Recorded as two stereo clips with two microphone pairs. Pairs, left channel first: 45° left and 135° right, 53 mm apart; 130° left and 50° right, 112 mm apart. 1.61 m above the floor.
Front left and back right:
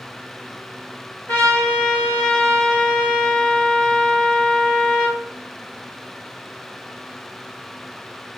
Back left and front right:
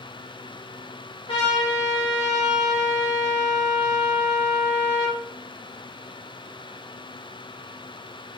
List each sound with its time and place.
1.3 s a trumpet: 90° left, 1.0 m